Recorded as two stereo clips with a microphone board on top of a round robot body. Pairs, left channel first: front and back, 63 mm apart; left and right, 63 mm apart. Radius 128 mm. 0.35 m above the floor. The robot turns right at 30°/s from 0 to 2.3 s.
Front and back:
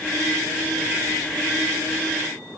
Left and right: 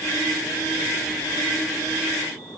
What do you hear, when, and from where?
Only background noise.